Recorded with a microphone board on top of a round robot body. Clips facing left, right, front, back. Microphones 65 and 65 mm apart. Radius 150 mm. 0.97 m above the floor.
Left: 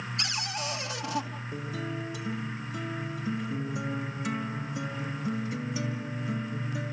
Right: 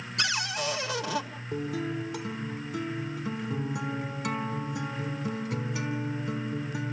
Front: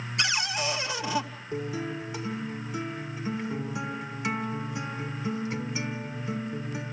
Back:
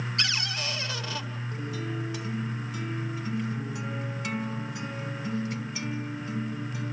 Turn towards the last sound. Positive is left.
turn(degrees=-70)